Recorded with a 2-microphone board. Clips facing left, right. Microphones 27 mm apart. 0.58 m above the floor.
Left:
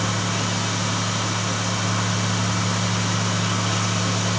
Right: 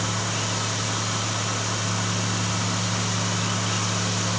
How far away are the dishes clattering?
No dishes clattering in this recording.